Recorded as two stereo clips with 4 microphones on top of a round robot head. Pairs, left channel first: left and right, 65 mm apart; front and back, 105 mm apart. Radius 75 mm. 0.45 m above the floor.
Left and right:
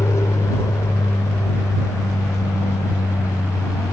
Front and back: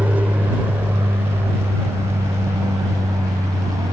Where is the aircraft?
110° left; by 3.9 s 125° left.